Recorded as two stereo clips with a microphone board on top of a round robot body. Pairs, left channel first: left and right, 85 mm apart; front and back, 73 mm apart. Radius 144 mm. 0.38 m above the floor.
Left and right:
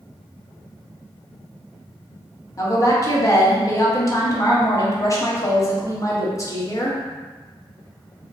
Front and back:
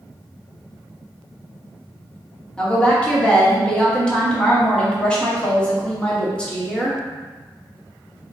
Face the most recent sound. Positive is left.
turn(degrees=70)